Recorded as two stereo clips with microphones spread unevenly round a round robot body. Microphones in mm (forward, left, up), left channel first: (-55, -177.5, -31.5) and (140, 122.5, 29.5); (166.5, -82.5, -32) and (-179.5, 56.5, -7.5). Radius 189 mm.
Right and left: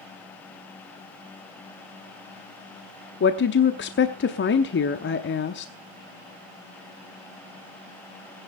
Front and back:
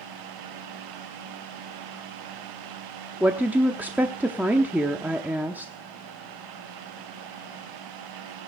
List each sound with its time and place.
3.2 s a woman speaking: 115° right, 0.8 m